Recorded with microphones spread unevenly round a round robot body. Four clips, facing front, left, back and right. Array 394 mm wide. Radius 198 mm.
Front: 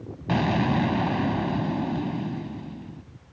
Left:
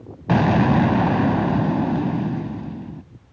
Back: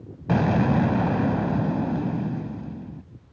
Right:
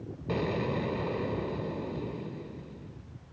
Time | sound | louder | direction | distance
0.3 | an explosion | left 14 dB, back 2 dB | 100° left | ?